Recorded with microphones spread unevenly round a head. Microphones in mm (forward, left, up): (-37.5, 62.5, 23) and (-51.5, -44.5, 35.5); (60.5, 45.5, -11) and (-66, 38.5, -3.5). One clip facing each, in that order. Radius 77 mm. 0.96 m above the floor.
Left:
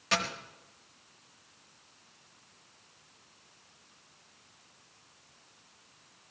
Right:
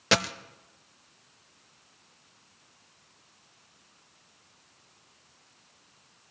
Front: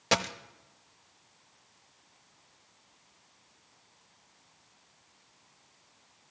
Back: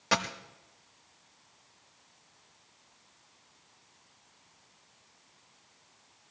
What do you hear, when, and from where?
0.1 s a dropped coin: 65° right, 0.6 m